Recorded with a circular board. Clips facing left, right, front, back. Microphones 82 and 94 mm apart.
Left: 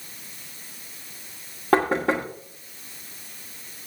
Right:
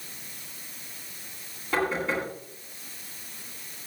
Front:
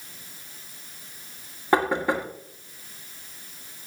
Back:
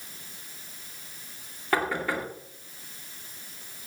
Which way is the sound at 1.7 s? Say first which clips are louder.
Left 6 dB, front 5 dB; 65° left.